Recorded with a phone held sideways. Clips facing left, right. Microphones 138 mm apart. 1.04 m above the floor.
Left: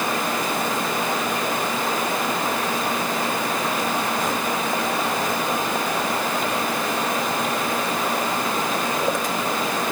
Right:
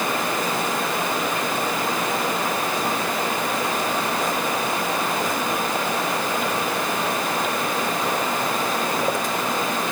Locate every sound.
Only background noise.